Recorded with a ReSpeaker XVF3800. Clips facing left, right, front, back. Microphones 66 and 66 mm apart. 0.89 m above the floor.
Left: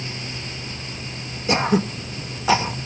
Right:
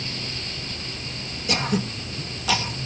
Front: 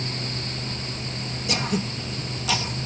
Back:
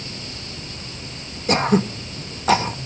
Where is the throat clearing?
145° left.